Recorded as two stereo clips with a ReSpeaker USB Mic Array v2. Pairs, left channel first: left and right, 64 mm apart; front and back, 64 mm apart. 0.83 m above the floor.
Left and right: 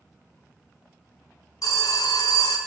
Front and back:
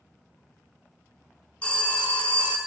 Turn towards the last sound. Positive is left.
turn(degrees=70)